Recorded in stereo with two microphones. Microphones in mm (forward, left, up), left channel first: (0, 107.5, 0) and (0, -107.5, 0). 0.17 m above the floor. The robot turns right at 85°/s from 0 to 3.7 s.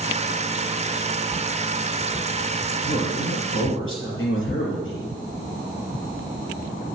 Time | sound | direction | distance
2.9 | a man speaking | 25° left | 3.5 m